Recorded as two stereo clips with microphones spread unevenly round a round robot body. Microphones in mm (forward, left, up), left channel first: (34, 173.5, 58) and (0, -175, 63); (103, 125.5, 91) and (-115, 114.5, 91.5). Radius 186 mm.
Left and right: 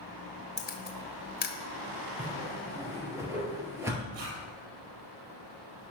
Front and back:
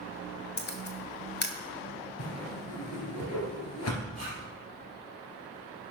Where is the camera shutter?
30° left, 1.4 m.